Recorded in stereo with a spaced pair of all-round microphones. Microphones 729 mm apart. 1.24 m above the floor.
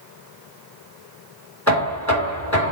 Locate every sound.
1.7 s knocking: 25° left (ahead or behind), 3.5 m